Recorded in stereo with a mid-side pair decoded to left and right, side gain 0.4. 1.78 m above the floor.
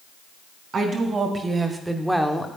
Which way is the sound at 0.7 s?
55° right.